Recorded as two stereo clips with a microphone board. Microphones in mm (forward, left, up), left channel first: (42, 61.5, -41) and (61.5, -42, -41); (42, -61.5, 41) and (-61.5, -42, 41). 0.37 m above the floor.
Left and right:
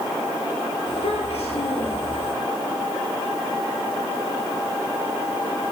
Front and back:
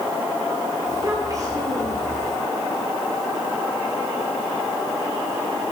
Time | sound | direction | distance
0.9 | a child speaking | 115° left | 9.5 m